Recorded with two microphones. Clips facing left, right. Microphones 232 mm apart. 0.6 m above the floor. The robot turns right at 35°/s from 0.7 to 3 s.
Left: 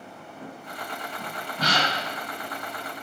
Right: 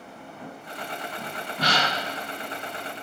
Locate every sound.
1.6 s a gasp: 60° right (ahead or behind), 1.0 m; by 1.9 s 70° right (ahead or behind), 1.0 m